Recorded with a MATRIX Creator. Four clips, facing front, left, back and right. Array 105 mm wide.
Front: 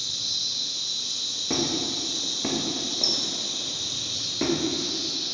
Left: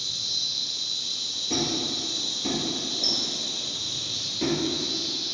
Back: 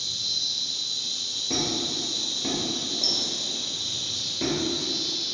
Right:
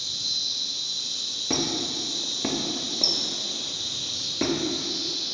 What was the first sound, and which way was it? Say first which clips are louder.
An insect: even, even; straight ahead.